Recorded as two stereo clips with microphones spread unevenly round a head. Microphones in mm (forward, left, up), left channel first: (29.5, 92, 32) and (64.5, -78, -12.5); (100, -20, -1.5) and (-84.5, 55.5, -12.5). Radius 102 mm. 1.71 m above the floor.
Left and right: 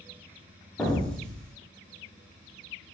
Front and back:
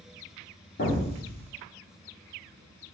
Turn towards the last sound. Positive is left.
turn(degrees=20)